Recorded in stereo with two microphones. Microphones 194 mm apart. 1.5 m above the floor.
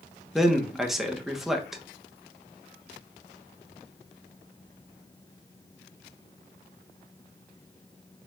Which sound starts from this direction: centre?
A man speaking, at 0.3 s.